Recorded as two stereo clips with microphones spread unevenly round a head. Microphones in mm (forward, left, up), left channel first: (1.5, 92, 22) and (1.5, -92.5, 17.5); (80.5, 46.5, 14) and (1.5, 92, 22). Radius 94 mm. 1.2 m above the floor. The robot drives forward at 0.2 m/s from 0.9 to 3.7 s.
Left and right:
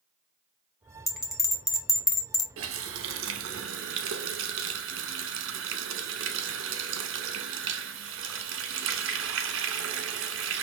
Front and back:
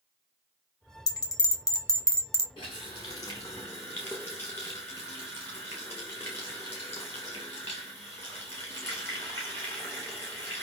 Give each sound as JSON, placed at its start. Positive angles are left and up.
{"t": 1.1, "sound": "a bell", "azimuth_deg": 15, "distance_m": 1.3}
{"t": 2.6, "sound": "a running tap", "azimuth_deg": -90, "distance_m": 0.8}